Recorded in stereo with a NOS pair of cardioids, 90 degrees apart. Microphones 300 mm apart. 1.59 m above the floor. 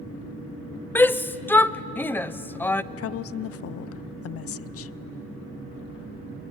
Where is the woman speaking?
50° left, 0.6 m.